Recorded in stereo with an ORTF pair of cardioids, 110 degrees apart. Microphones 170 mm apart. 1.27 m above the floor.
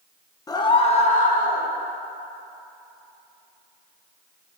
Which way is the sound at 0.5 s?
20° left.